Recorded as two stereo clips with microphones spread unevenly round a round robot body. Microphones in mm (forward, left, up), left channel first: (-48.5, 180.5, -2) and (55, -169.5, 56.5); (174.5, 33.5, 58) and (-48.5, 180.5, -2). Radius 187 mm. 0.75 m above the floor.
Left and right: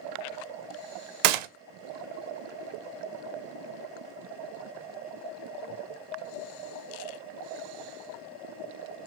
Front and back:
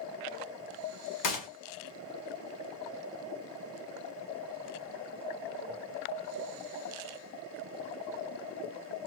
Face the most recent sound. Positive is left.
turn(degrees=-75)